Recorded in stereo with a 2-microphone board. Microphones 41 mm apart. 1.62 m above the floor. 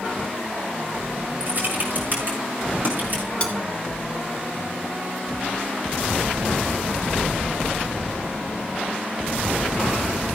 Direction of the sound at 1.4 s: 50° right (ahead or behind).